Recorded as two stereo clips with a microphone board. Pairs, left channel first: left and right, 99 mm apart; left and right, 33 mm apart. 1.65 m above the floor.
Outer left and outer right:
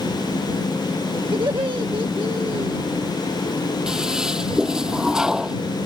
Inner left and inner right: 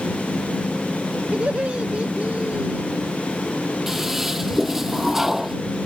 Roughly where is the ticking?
I don't hear ticking.